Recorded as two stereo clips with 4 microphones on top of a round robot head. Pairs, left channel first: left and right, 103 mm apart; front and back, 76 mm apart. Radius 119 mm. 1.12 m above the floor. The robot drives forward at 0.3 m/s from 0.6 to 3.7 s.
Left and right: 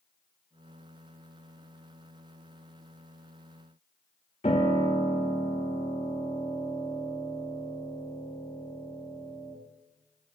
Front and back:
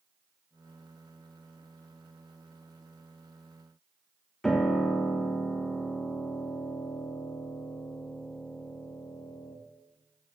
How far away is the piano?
About 0.5 m.